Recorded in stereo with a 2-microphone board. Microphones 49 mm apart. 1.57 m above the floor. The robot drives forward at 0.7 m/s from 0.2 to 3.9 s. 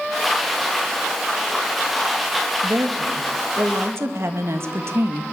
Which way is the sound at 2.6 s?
85° right.